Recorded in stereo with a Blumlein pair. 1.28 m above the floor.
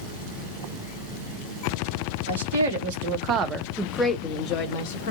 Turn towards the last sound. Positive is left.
turn(degrees=50)